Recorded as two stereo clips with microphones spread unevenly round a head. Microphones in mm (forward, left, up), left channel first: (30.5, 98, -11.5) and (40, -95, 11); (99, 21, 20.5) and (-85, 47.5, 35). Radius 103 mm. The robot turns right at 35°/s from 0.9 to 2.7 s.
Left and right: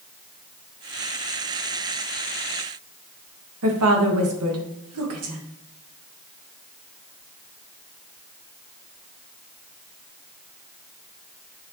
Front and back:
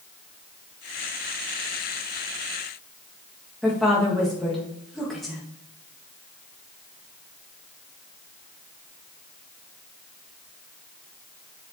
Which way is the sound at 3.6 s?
95° right.